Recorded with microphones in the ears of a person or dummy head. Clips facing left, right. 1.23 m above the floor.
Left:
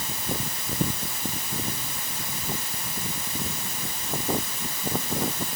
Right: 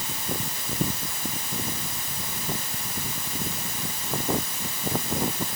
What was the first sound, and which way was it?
Only background noise.